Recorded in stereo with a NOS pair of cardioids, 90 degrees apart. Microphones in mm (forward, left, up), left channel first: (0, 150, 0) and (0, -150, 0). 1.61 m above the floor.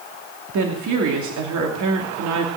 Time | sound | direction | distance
0.5 | a woman speaking | 65° right | 3 m